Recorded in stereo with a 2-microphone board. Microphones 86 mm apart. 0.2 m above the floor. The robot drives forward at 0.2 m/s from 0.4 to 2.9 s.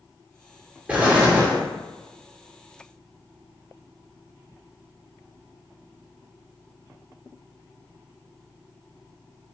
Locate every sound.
0.9 s an explosion: 15° right (ahead or behind), 0.7 m